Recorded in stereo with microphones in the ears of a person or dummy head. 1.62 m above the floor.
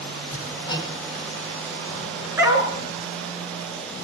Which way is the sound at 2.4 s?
10° right (ahead or behind).